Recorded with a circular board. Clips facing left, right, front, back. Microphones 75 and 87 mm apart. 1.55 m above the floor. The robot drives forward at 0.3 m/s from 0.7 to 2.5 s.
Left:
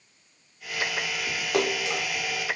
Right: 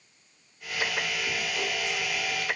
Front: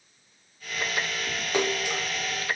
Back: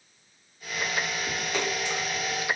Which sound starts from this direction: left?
A splash, at 1.5 s.